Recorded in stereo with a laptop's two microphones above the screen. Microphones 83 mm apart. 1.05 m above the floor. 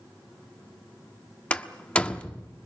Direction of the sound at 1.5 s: 15° left (ahead or behind).